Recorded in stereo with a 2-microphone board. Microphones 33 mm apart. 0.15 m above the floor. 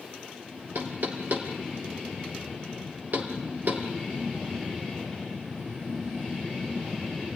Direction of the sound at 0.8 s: 60° right (ahead or behind).